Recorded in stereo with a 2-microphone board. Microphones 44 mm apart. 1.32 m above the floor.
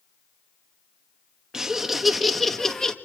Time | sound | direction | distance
1.5 | laughter | 10° right (ahead or behind) | 1.6 m